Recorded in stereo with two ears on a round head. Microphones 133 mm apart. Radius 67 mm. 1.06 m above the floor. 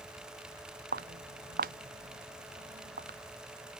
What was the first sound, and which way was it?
Footsteps, 60° right (ahead or behind).